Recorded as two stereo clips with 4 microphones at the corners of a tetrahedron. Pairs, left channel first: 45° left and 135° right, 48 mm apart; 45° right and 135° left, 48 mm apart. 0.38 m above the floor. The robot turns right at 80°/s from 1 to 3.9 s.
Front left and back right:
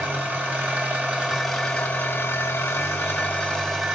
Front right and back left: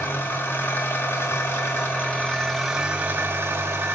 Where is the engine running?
80° right, 2.0 m; by 4.0 s 150° left, 2.0 m.